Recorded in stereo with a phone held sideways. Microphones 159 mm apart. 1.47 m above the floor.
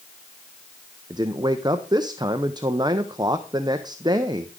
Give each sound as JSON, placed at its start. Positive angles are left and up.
{"t": 1.1, "sound": "a man speaking", "side_deg": -30, "distance_m": 0.7}